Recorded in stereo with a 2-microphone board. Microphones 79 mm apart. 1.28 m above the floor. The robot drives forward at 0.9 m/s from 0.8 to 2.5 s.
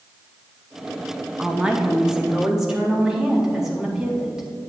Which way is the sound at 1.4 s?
15° right (ahead or behind).